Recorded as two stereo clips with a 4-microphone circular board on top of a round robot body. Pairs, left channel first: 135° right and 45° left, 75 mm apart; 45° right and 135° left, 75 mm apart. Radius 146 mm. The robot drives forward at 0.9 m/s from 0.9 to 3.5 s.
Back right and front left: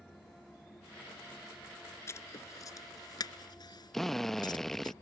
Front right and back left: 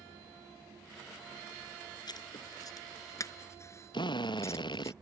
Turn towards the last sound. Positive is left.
turn(degrees=-50)